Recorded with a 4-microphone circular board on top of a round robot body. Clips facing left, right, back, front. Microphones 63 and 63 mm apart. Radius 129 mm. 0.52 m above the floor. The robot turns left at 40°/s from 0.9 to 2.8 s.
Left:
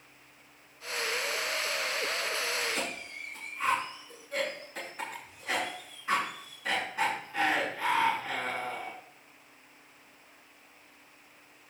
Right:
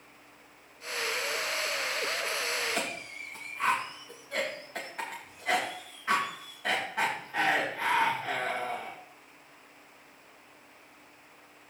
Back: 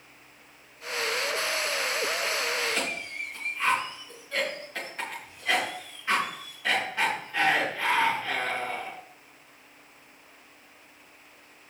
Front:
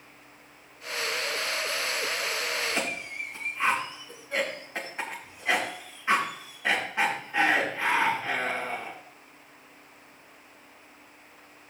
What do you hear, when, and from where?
2.6 s a cough: 60° right, 3.5 m; by 9.0 s 70° right, 3.5 m